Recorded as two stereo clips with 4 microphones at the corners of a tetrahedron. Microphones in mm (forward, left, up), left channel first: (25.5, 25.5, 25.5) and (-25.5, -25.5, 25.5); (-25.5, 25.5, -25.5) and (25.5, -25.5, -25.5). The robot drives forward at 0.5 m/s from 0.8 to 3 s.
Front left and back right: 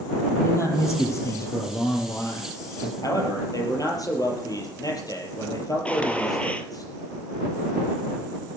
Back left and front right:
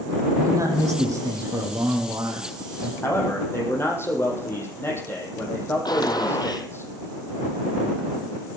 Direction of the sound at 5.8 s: 120° left.